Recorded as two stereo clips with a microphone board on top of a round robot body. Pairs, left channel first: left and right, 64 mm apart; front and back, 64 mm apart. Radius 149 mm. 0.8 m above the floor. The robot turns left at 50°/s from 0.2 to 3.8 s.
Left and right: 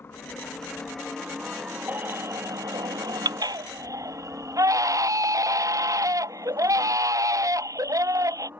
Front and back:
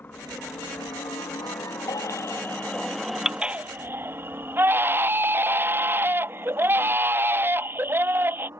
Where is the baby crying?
25° right; by 8.5 s 125° right.